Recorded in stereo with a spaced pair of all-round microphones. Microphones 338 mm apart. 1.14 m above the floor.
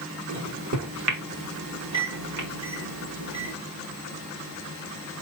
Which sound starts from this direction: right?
A microwave, at 0.3 s.